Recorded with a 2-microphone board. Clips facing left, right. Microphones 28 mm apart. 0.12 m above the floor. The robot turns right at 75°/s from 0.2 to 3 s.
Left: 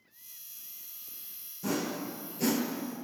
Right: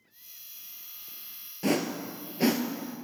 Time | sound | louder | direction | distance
1.6 | a whoosh | right 4 dB | 60° right (ahead or behind) | 0.6 m